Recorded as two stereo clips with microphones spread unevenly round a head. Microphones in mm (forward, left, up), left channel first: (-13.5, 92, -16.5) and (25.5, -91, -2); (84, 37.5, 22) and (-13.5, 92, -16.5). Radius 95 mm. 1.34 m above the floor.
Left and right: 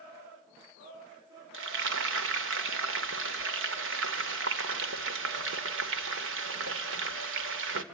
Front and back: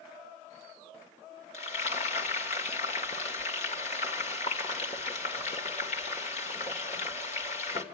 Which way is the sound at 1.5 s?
60° right.